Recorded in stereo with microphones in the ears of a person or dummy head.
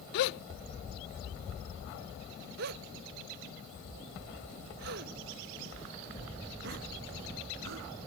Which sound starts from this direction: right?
A gasp, at 2.6 s.